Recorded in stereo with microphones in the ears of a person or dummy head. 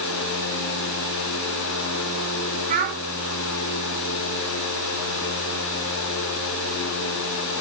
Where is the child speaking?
40° right (ahead or behind), 3.5 m.